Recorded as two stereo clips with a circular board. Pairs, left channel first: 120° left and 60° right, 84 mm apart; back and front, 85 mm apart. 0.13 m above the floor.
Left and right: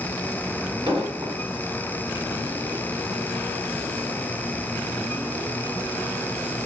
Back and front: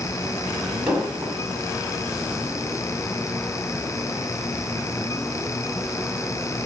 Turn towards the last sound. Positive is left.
turn(degrees=-80)